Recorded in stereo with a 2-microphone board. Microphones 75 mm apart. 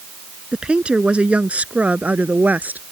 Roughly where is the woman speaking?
Centre.